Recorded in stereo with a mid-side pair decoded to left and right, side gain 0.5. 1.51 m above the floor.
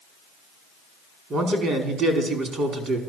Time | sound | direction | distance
1.3 | a man speaking | 50° right | 5 m